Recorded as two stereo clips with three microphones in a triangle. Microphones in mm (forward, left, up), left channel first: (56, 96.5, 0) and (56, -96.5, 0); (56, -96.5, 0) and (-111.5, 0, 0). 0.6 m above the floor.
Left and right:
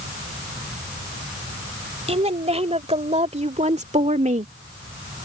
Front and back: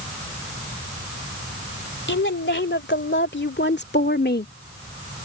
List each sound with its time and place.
2.1 s a woman speaking: 35° right; by 4.5 s 45° right